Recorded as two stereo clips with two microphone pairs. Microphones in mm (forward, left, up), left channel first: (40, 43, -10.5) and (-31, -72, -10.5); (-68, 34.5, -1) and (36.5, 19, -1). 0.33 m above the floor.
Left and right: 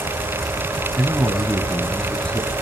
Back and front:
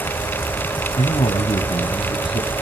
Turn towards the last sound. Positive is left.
turn(degrees=135)